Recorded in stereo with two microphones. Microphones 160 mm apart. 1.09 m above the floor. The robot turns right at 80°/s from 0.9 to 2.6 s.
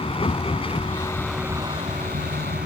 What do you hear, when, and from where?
0.0 s a vehicle: 145° left; by 2.6 s 80° right